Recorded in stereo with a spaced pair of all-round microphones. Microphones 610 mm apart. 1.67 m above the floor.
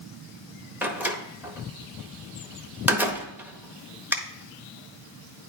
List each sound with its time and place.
0.8 s a door slam: 5° right (ahead or behind), 0.8 m